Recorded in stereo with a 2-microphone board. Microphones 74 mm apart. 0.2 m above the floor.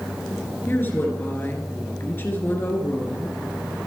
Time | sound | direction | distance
0.7 | a woman speaking | 30° left (ahead or behind) | 3 m